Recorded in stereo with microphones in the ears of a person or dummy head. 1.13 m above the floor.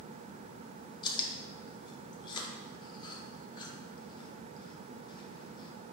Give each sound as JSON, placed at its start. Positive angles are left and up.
{"t": 1.0, "sound": "chewing", "side_deg": 25, "distance_m": 0.7}